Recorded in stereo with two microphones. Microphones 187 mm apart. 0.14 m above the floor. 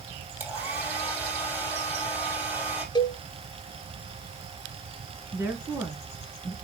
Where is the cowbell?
25° left (ahead or behind), 0.6 m.